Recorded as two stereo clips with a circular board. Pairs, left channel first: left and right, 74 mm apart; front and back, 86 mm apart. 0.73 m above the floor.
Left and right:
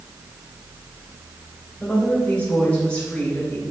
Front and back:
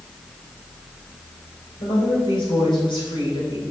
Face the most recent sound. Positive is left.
turn(degrees=15)